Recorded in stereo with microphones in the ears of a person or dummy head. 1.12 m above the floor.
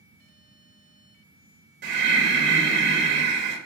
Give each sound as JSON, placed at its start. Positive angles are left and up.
{"t": 1.8, "sound": "breathing", "side_deg": -50, "distance_m": 0.7}